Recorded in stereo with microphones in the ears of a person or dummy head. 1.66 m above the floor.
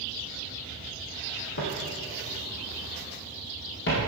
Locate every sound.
1.6 s footsteps: 60° left (ahead or behind), 3.5 m